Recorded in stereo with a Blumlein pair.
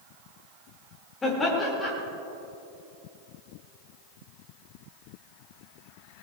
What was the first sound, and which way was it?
Laughter, 15° left.